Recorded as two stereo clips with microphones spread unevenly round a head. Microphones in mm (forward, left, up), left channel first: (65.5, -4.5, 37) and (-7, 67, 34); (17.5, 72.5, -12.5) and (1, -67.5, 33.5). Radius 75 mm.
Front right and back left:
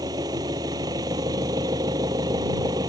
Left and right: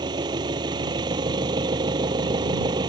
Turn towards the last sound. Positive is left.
turn(degrees=-160)